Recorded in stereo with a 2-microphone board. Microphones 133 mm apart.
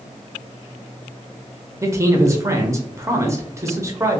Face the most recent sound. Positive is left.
turn(degrees=-20)  # may be behind; listen again after turning